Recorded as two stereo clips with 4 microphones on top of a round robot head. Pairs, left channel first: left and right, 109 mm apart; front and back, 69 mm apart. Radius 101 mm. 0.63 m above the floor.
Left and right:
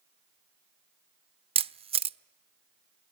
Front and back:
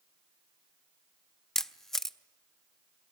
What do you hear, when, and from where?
1.6 s a camera shutter: 80° right, 0.5 m